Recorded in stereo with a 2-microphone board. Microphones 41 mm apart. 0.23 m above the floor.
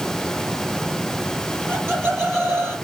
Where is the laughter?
60° right (ahead or behind), 5.5 m; by 2.8 s 65° right (ahead or behind), 5 m.